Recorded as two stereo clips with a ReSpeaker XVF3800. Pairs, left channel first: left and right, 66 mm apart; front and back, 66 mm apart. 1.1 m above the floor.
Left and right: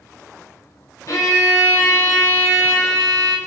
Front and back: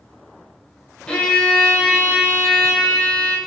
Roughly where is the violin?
Left.